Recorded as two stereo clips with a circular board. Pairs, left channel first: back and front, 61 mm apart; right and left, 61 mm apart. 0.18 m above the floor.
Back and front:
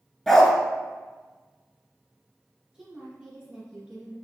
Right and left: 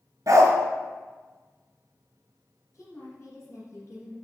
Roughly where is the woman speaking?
Right.